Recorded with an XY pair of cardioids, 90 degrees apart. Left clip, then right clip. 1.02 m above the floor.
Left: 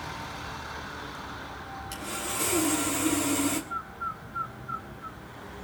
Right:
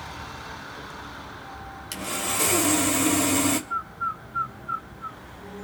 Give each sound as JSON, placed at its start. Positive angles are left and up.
{"t": 1.9, "sound": "sawing", "azimuth_deg": -55, "distance_m": 3.0}
{"t": 3.7, "sound": "a bird", "azimuth_deg": -45, "distance_m": 1.3}